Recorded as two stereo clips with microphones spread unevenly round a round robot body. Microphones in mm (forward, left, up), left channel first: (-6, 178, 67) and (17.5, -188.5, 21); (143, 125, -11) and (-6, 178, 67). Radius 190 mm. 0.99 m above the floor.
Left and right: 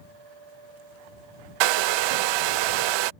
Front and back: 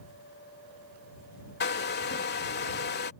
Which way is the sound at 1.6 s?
65° right.